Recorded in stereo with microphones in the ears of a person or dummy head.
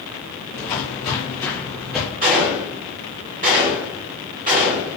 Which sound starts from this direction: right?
A gunshot, at 2.2 s.